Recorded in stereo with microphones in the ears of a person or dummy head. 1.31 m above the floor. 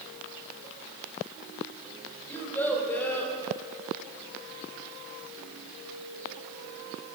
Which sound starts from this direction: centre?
A child speaking, at 2.3 s.